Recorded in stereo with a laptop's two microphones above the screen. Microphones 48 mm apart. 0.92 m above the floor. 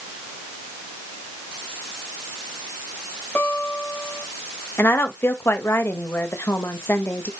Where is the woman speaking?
55° left (ahead or behind), 1.2 m.